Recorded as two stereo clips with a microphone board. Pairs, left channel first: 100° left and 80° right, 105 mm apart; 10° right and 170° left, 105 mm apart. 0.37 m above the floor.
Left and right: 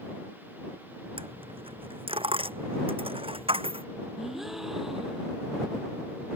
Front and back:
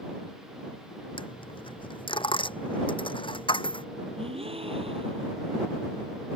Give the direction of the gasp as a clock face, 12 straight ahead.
6 o'clock.